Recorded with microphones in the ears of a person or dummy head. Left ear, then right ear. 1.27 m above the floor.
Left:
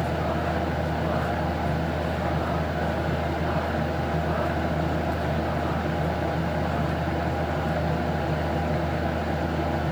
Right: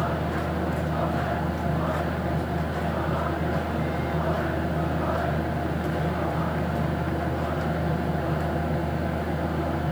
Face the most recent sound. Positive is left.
turn(degrees=20)  # may be behind; listen again after turning